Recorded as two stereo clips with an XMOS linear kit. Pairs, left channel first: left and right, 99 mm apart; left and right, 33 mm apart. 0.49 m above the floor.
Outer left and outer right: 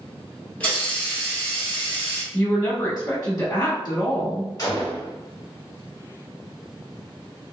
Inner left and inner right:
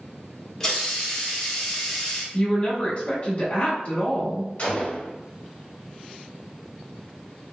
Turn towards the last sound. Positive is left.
turn(degrees=40)  # may be behind; listen again after turning